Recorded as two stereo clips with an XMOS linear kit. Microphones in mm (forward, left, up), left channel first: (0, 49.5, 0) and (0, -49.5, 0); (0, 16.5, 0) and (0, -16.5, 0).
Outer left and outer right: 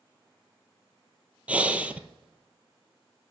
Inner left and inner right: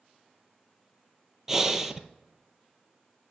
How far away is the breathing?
About 0.5 m.